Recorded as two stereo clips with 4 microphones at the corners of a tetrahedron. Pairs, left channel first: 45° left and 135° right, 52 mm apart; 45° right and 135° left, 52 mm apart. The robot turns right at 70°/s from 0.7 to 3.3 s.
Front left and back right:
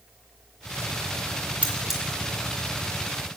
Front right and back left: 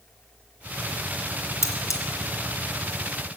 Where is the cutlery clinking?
70° right, 2 m; by 2.0 s 45° right, 2 m.